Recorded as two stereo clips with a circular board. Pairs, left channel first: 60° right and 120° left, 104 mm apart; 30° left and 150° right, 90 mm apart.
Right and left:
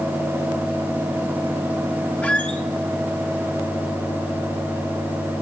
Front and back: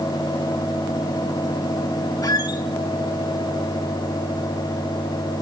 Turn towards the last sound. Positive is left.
turn(degrees=10)